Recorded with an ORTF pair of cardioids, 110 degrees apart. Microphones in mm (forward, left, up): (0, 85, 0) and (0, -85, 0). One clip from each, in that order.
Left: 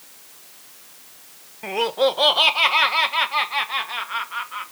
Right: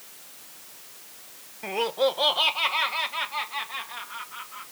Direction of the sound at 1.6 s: 10° left.